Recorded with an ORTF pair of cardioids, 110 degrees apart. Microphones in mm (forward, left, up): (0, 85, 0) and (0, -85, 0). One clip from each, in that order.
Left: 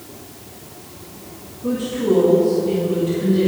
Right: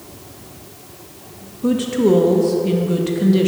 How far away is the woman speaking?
About 1.5 m.